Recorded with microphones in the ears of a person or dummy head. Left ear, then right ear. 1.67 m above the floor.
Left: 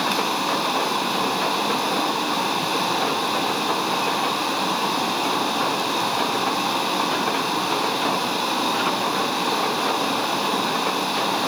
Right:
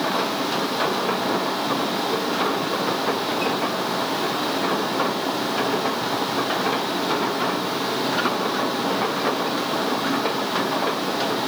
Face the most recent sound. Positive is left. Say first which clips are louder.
# left 1 dB
turn(degrees=35)  # may be behind; listen again after turning